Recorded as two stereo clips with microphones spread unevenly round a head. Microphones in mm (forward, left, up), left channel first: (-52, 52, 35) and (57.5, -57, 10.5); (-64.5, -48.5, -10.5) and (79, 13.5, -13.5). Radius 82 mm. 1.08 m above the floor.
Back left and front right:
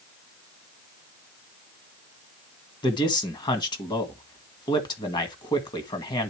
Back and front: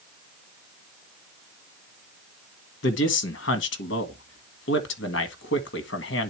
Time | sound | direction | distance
2.8 | a man speaking | 160° right | 1.6 m